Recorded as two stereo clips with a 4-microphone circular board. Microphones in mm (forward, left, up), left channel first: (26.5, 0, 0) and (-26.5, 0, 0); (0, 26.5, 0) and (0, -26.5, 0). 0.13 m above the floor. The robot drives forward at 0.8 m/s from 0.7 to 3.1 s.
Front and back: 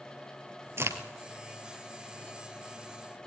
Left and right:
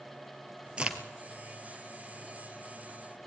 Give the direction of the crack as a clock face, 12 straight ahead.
5 o'clock.